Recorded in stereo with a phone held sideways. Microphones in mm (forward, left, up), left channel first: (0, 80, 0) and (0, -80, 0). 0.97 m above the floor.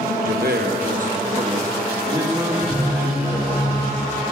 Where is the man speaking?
65° right (ahead or behind), 0.8 m; by 3.6 s 15° right (ahead or behind), 3 m.